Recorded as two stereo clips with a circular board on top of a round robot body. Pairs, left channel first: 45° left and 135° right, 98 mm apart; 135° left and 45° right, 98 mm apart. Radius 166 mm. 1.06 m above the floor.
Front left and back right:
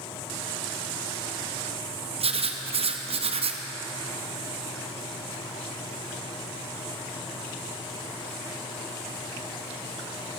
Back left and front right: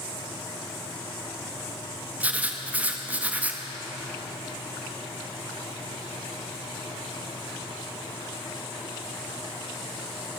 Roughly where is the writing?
Behind right.